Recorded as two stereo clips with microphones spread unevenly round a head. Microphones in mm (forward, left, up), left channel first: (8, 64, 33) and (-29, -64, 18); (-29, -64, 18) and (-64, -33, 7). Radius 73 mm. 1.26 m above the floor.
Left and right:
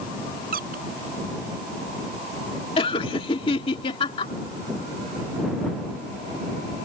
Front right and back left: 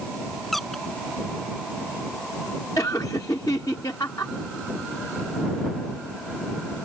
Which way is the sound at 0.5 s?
125° right.